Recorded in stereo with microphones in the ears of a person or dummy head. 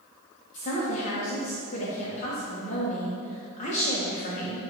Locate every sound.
0.5 s a woman speaking: 40° left (ahead or behind), 1.5 m